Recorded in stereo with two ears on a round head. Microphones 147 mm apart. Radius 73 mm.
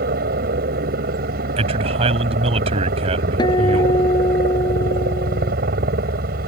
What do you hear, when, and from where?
0.0 s a helicopter: 60° right (ahead or behind)
1.6 s a man speaking: 35° right (ahead or behind)
3.4 s a guitar: 25° left (ahead or behind)